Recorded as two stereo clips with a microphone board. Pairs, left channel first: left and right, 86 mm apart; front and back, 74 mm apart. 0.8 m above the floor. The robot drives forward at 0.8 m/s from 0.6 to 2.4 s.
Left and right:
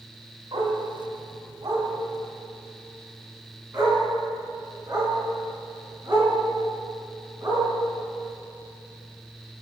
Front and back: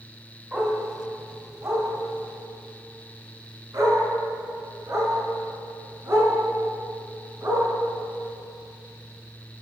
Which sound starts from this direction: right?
A dog barking, at 0.5 s.